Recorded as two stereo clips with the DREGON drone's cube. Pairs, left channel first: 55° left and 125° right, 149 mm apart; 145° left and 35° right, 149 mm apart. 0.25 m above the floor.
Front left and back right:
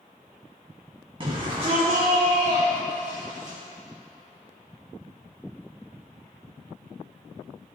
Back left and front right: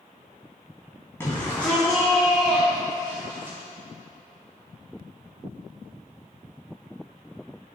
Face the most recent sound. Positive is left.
turn(degrees=-110)